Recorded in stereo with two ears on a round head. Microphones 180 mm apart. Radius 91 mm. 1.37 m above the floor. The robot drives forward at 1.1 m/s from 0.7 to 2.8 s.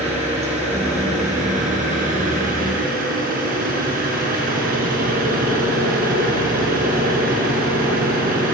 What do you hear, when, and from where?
0.0 s an engine running: 30° right (ahead or behind), 7.5 m; by 8.6 s 45° right (ahead or behind), 5.5 m